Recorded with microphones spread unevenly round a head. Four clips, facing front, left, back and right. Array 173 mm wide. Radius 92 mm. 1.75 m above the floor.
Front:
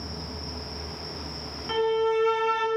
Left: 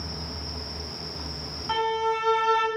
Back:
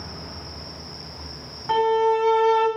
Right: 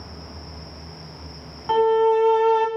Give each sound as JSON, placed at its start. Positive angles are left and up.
{"t": 1.7, "sound": "a violin", "azimuth_deg": -105, "distance_m": 0.5}